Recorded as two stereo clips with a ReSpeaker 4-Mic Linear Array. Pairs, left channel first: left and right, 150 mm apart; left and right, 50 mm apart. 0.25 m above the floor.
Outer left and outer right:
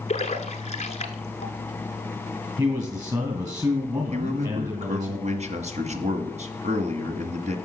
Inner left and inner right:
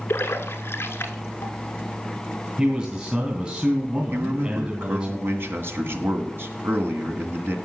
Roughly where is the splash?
Left.